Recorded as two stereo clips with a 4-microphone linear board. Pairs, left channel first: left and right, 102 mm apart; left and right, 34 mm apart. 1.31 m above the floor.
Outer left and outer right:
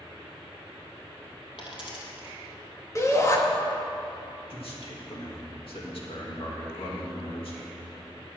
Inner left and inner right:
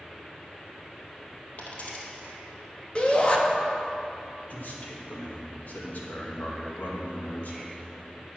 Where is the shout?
30° left (ahead or behind), 1.7 m.